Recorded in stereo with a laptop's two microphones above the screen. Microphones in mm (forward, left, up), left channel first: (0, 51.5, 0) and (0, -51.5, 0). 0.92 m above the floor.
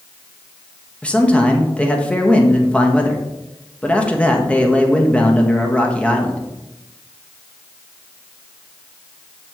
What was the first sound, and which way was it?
A man speaking, 10° left (ahead or behind).